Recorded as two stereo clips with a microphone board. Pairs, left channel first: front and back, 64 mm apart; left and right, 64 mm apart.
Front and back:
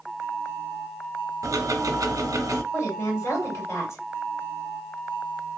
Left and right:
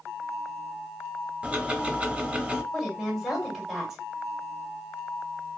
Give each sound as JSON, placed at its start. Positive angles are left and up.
{"t": 1.4, "sound": "ticking", "azimuth_deg": -160, "distance_m": 0.6}
{"t": 2.7, "sound": "a woman speaking", "azimuth_deg": -5, "distance_m": 2.0}